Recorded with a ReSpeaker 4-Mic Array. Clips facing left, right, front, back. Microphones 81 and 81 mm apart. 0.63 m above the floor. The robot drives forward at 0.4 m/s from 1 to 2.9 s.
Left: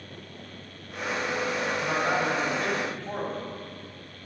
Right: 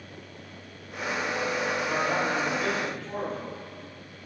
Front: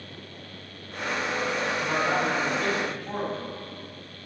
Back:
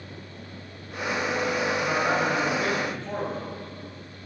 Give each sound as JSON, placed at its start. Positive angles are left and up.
{"t": 1.8, "sound": "a man speaking", "azimuth_deg": 110, "distance_m": 3.0}